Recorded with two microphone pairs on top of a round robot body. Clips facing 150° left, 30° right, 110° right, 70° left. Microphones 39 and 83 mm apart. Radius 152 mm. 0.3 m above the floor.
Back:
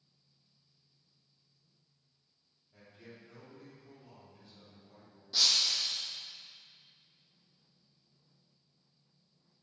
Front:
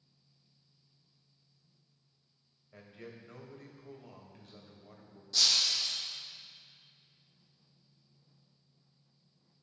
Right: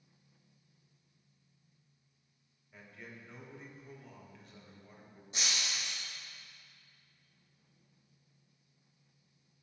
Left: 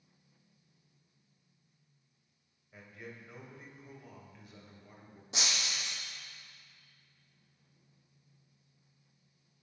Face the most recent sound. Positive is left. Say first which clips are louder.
# even, left 1 dB
turn(degrees=70)